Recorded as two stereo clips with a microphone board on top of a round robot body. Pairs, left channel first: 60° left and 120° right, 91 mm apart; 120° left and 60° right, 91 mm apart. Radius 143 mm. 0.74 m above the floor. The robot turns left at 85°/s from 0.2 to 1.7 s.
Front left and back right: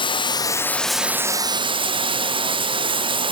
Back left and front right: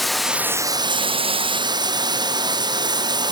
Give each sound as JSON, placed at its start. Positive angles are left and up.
{"t": 0.0, "sound": "running water", "azimuth_deg": 30, "distance_m": 1.3}